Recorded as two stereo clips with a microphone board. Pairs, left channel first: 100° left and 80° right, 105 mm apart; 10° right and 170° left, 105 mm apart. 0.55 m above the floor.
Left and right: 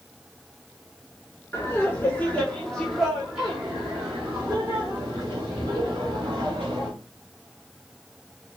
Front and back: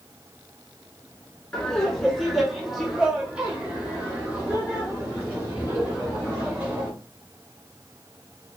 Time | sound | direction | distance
1.5 | laughter | 70° left | 1.4 m